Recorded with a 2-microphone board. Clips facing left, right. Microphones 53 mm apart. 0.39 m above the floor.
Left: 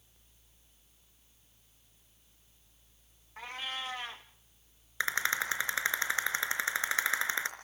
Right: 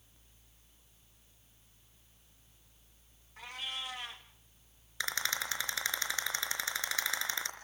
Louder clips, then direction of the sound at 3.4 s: Left 3 dB; 35° left (ahead or behind).